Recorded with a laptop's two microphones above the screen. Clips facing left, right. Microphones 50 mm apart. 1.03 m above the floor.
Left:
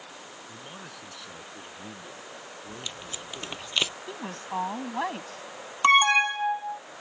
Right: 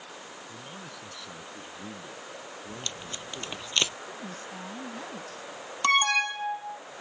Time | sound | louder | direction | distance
0.5 | a man speaking | left 1 dB | 15° left (ahead or behind) | ?
2.7 | tape being pulled | even | 10° left (ahead or behind) | ?
4.1 | a woman speaking | left 4 dB | 75° left (ahead or behind) | ?
5.8 | an alarm | left 4 dB | 20° left (ahead or behind) | ?